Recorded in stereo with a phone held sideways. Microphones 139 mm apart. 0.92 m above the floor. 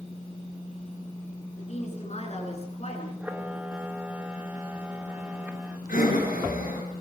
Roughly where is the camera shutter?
Centre.